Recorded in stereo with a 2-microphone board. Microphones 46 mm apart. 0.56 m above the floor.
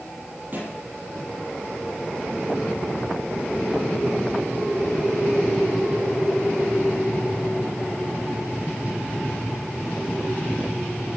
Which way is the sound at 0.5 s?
40° right (ahead or behind).